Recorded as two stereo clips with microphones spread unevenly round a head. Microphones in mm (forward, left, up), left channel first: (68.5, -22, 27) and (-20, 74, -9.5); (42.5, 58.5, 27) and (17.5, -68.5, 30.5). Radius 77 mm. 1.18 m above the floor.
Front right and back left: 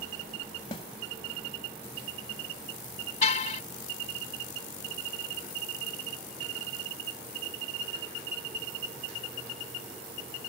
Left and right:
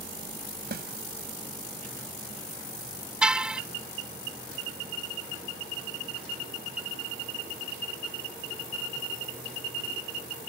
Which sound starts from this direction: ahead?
A car horn, at 3.2 s.